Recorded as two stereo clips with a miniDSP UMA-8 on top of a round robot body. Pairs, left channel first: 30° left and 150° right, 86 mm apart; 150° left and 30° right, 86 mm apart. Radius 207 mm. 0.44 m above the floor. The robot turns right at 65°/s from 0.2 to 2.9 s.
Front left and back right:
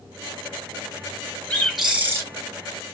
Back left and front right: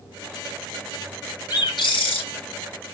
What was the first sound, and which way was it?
A bird, 105° left.